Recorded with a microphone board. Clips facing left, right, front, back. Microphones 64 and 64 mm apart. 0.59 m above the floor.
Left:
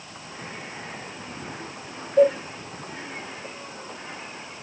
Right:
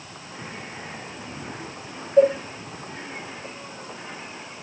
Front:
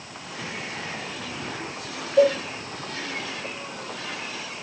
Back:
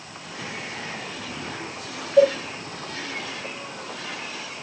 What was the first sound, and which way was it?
A cowbell, 140° right.